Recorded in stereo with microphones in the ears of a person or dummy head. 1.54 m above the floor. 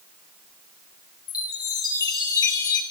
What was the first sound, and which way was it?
A chime, 20° left (ahead or behind).